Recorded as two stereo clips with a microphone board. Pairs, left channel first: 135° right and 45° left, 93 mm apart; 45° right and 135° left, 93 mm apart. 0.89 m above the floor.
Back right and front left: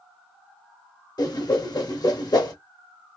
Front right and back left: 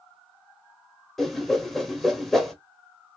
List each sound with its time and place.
1.2 s a whoosh: 135° right, 0.7 m